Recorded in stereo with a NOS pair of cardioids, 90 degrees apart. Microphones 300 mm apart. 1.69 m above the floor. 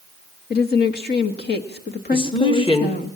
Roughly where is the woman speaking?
Ahead left.